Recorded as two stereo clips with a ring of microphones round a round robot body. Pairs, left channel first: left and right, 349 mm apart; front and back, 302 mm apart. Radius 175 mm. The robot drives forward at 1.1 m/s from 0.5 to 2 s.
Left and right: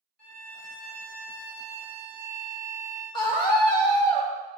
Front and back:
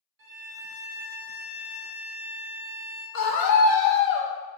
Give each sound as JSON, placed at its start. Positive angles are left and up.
{"t": 0.2, "sound": "a violin", "azimuth_deg": 135, "distance_m": 2.0}
{"t": 3.1, "sound": "a scream", "azimuth_deg": 15, "distance_m": 2.5}